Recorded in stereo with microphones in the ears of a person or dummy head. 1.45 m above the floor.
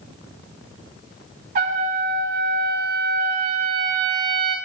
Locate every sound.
1.6 s a trumpet: 45° right (ahead or behind), 1.2 m